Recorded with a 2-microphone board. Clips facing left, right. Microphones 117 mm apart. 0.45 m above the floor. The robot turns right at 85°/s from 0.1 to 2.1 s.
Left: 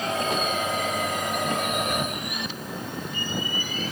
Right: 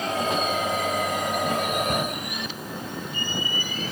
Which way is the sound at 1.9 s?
45° right (ahead or behind).